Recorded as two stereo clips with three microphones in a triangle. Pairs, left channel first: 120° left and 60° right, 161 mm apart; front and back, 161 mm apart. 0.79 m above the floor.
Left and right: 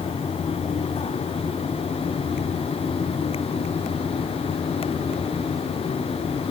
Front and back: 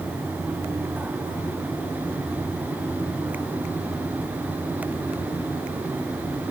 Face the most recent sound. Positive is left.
No sound to turn to.